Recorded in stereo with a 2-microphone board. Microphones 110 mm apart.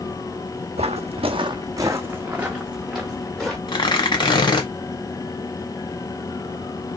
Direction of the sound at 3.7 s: 45° left (ahead or behind).